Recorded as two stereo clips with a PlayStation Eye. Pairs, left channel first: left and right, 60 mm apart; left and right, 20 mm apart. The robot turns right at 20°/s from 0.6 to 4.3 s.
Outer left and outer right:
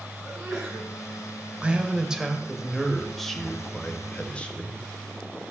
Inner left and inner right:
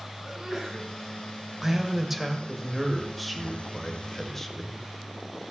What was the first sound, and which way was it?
A sneeze, 35° right (ahead or behind).